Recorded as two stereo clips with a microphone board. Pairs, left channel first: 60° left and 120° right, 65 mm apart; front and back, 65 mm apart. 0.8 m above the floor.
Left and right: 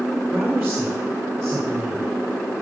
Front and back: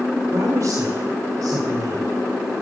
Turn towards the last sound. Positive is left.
turn(degrees=180)